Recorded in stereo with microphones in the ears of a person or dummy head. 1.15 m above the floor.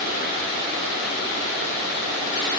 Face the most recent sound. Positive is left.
No sound to turn to.